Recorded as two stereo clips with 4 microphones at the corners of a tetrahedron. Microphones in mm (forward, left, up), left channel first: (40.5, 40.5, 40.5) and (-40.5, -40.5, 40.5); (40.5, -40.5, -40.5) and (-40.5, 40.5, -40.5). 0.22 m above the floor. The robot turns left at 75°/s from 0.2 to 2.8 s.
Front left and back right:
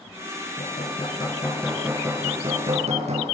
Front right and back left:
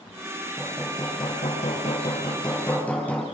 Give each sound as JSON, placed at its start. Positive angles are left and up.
{"t": 0.6, "sound": "hammering", "azimuth_deg": 45, "distance_m": 4.5}